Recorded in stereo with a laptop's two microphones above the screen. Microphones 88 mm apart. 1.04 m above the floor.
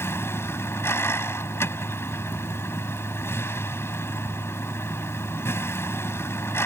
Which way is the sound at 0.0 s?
25° left (ahead or behind).